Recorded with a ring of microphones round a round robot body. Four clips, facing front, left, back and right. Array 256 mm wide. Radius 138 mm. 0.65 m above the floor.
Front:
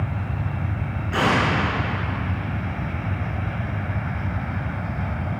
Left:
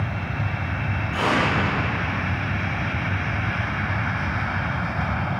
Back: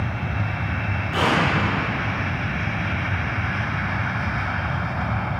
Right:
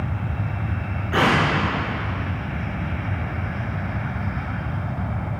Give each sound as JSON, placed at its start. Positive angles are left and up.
{"t": 1.1, "sound": "an explosion", "azimuth_deg": -75, "distance_m": 9.5}